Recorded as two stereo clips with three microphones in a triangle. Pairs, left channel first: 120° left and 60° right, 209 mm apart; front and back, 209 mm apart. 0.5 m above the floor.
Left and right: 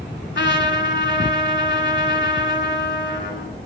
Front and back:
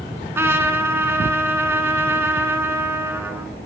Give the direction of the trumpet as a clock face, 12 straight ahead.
9 o'clock.